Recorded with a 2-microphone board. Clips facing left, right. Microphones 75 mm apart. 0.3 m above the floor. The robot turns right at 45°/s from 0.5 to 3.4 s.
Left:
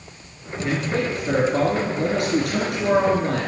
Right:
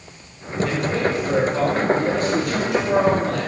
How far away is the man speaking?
About 3 m.